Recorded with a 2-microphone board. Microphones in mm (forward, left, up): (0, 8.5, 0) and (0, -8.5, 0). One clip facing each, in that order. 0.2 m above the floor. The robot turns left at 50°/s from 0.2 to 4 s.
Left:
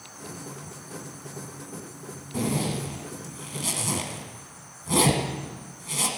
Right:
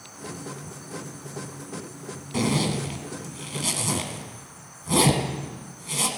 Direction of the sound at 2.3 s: 45° right (ahead or behind).